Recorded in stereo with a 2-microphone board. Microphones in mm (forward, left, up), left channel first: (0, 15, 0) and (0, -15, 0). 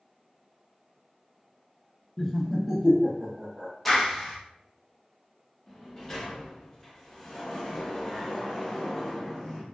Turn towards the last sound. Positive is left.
turn(degrees=10)  # may be behind; listen again after turning